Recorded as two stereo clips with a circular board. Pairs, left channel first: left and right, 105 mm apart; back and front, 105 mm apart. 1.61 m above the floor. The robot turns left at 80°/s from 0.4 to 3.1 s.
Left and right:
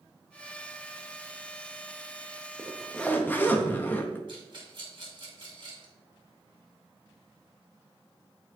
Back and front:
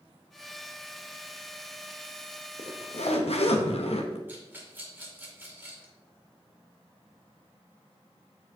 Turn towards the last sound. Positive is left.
turn(degrees=-65)